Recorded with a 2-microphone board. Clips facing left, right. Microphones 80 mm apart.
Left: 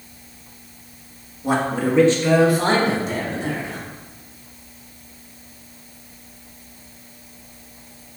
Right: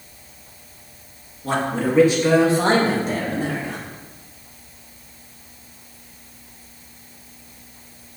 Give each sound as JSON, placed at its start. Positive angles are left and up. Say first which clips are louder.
{"t": 1.4, "sound": "a man speaking", "louder": "left 1 dB", "side_deg": 15, "distance_m": 1.7}